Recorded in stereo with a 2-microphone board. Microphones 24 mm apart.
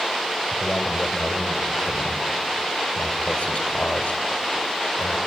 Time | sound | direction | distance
0.5 | a man speaking | 65° left (ahead or behind) | 2 m